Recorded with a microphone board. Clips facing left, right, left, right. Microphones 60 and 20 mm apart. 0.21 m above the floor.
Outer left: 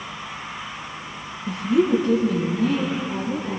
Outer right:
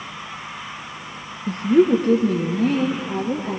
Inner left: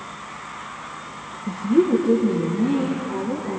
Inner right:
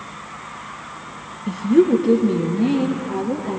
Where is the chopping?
I don't hear chopping.